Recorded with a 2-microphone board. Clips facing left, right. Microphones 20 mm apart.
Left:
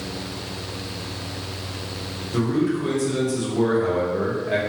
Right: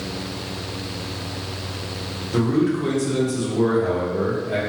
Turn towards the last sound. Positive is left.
turn(degrees=45)  # may be behind; listen again after turning